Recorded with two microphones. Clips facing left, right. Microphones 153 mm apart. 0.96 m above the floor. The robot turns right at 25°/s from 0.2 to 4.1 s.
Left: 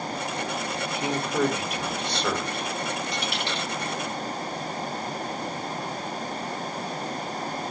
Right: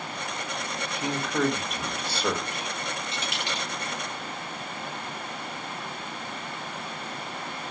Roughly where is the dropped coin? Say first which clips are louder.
Left 3 dB; right.